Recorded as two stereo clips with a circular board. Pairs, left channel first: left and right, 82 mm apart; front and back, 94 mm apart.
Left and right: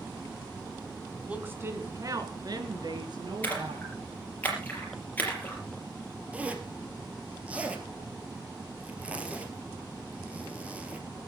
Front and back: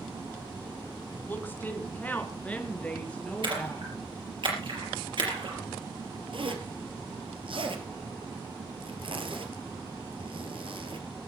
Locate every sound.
1.3 s a woman speaking: 35° right, 1.5 m; by 3.9 s 80° right, 4 m
3.4 s a splash: 155° left, 4.5 m
6.3 s a zipper: 165° right, 2 m